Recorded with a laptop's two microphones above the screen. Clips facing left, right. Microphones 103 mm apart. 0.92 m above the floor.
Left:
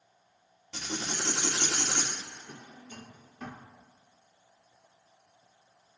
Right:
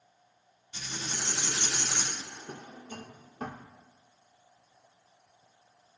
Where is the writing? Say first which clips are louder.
Left 4 dB; 75° left (ahead or behind), 2 m.